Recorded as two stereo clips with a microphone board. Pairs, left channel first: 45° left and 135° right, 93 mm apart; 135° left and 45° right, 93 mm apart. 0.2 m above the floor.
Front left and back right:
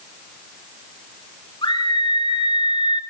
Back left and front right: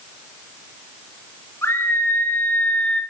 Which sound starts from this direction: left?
A scream, at 1.6 s.